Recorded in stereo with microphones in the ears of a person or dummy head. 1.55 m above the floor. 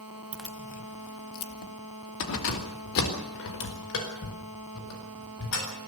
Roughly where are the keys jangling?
Centre.